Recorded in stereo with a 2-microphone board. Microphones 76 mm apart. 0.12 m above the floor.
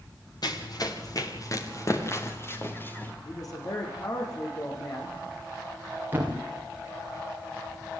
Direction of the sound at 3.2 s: 50° left (ahead or behind).